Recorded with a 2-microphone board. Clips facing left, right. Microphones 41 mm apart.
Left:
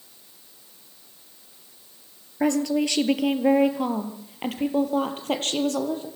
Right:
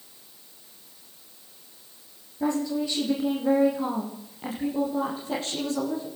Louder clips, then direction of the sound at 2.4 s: Left 4 dB; 65° left (ahead or behind).